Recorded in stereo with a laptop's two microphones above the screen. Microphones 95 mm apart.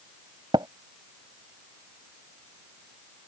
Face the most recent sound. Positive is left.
turn(degrees=-50)  # may be behind; listen again after turning